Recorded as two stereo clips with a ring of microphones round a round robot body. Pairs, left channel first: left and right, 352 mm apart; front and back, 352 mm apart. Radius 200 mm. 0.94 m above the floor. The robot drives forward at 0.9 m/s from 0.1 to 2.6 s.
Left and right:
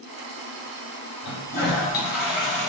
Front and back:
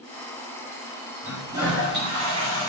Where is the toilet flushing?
110° left, 2.5 m; by 2.7 s 130° left, 3.5 m.